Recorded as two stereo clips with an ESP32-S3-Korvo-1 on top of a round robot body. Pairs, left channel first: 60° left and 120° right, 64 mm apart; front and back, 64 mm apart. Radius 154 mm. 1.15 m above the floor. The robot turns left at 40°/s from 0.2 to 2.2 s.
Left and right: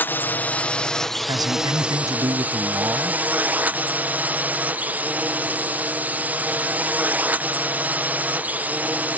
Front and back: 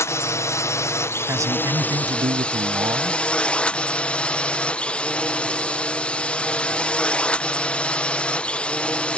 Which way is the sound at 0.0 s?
15° left.